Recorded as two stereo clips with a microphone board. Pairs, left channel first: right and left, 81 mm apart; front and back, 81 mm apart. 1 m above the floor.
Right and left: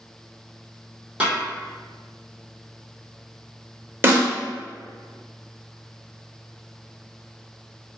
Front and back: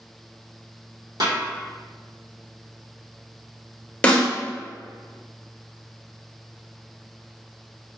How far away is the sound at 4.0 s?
About 0.7 m.